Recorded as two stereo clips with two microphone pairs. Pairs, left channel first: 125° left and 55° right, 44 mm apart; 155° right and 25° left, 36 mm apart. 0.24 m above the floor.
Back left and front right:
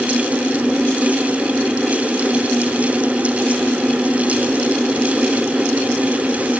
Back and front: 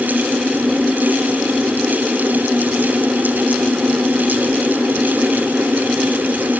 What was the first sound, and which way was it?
Only background noise.